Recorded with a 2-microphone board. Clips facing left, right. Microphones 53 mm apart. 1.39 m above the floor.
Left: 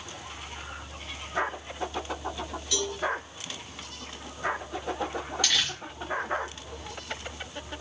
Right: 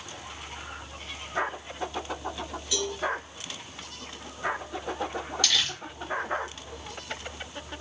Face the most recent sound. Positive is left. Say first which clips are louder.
# even
turn(degrees=10)  # may be behind; listen again after turning